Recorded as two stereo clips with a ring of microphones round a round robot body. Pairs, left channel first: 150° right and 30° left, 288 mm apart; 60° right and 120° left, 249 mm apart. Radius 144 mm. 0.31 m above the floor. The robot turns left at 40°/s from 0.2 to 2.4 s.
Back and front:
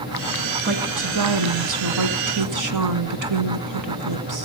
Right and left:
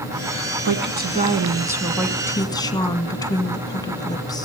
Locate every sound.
0.7 s a woman speaking: 85° left, 3 m; by 4.5 s 15° left, 3 m